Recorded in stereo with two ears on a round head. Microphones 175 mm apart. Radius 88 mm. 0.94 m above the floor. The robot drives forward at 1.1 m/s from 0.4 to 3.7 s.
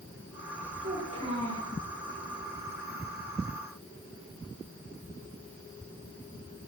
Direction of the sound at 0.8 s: 30° right (ahead or behind).